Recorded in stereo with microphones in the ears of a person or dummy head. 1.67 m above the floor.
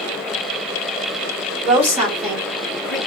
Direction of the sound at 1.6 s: 30° right (ahead or behind).